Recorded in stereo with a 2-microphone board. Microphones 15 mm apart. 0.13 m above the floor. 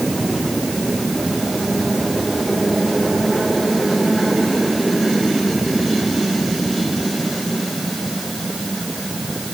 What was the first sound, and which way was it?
Only background noise.